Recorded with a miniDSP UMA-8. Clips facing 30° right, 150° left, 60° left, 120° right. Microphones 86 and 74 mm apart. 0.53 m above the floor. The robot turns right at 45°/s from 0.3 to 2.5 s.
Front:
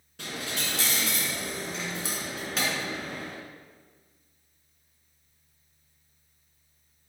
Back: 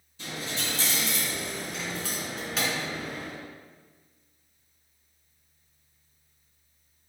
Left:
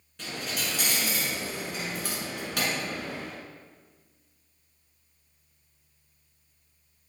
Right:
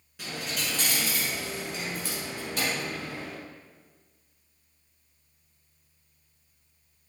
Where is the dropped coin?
40° right, 1.3 m; by 3.4 s 60° left, 1.3 m.